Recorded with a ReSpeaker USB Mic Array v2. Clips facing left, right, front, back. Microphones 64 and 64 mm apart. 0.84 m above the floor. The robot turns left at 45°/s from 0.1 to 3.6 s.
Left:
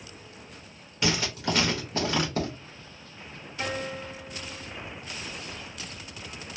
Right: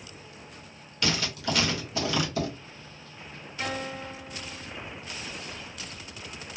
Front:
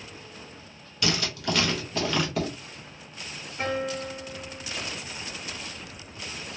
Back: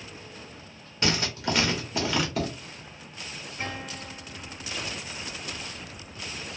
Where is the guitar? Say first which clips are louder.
Left 1 dB, front 8 dB; 5° left, 1.2 m.